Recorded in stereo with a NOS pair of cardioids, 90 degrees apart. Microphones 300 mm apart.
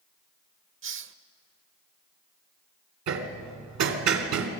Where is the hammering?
70° right, 2.5 m.